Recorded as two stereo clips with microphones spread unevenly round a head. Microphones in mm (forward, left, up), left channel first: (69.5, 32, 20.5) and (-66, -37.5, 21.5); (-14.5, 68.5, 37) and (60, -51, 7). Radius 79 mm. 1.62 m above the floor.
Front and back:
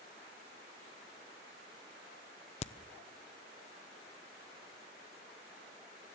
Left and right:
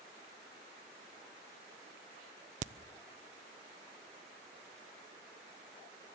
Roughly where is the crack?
Ahead.